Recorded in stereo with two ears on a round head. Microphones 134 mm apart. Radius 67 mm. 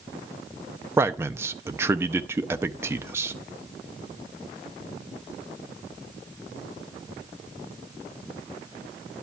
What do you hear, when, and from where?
1.0 s a man speaking: 15° right (ahead or behind), 0.6 m